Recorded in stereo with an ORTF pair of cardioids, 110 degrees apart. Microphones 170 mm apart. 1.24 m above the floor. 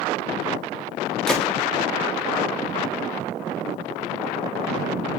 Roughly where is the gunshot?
Ahead.